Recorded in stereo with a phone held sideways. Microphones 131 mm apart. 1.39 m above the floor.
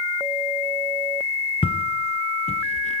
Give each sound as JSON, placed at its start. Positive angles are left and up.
{"t": 1.6, "sound": "footsteps", "side_deg": 45, "distance_m": 1.9}